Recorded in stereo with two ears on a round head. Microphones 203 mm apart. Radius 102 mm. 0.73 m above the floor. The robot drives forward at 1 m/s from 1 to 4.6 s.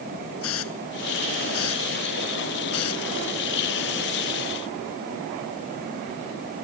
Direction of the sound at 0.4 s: 65° left (ahead or behind).